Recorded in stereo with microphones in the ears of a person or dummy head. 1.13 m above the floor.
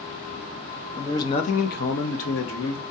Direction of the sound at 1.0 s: 15° left (ahead or behind).